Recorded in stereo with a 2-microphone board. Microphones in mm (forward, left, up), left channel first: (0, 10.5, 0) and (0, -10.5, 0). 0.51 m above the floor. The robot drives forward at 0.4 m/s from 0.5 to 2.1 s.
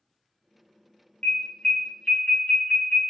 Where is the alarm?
45° left (ahead or behind), 0.8 m; by 3.0 s 50° left (ahead or behind), 0.7 m.